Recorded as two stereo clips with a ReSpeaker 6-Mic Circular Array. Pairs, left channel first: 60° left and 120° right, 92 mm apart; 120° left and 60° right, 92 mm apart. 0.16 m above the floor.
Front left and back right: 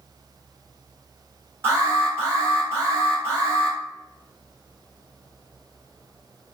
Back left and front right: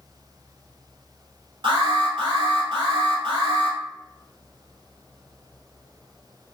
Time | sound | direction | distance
1.6 | an alarm | 60° right | 1.5 m